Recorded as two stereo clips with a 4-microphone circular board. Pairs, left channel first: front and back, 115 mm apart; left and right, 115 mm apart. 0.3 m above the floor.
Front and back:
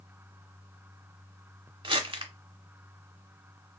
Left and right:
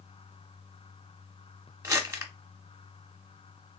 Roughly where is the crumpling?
Behind right.